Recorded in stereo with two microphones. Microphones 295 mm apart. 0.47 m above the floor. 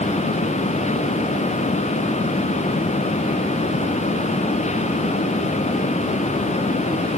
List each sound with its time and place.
Only background noise.